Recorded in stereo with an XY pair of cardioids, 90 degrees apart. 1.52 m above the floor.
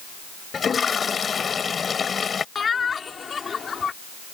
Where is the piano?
I don't hear a piano.